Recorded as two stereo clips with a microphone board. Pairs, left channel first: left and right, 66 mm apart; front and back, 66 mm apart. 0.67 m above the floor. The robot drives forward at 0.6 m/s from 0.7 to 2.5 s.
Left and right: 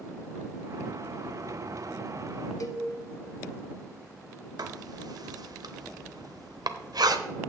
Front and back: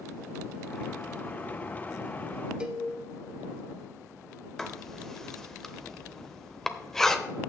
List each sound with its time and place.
2.6 s a cowbell: 105° left, 1.0 m
4.6 s writing: 85° right, 0.8 m